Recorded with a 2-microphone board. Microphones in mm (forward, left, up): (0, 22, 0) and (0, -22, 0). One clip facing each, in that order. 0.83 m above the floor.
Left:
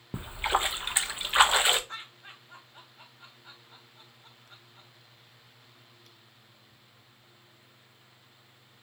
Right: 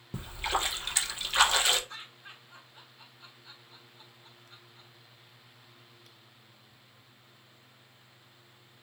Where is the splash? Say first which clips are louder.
Left 3 dB; 25° left (ahead or behind), 0.5 m.